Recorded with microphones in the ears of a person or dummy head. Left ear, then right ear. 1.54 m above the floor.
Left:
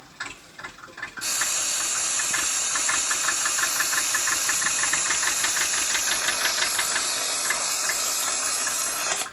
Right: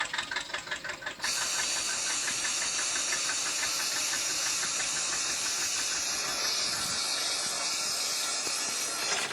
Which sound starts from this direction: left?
Frying, at 1.2 s.